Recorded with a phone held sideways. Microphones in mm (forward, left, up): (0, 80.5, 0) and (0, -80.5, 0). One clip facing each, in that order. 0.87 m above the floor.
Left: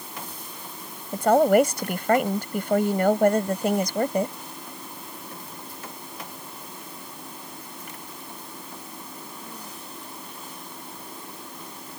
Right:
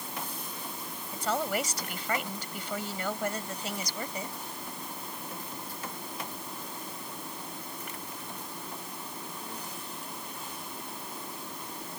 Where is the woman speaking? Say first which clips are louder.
Left 14 dB; 55° left (ahead or behind).